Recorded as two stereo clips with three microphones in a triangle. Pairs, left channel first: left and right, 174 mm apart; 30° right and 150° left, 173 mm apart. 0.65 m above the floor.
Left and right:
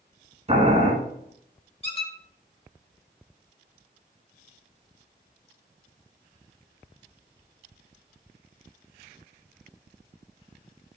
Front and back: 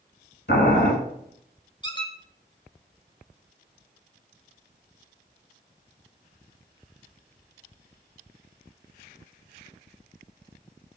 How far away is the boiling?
About 1.7 m.